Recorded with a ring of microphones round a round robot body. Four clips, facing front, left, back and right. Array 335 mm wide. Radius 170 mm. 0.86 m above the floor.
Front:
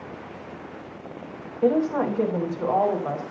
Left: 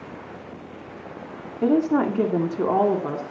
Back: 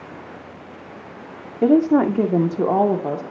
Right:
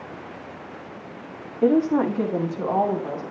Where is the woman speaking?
Straight behind, 2.5 m; by 3.2 s 155° left, 3 m.